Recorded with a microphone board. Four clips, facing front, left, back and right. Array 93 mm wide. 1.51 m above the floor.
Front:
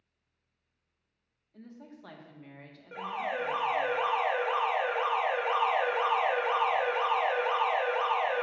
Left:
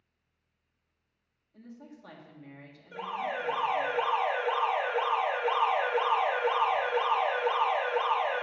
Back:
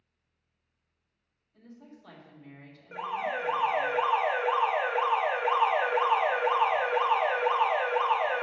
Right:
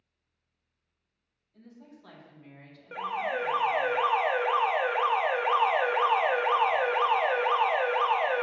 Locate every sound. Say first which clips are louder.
1.5 s a woman speaking: left 3 dB, front 2 dB; 20° left, 1.7 m
2.9 s an alarm: right 3 dB, back 2 dB; 100° right, 1.2 m